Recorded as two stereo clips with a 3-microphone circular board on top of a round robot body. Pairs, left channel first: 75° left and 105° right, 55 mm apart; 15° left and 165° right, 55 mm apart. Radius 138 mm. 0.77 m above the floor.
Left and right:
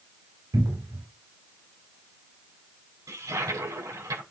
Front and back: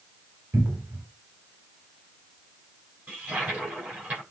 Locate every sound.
0.5 s a cupboard door: 115° right, 2.0 m
3.1 s a toilet flushing: 100° right, 7 m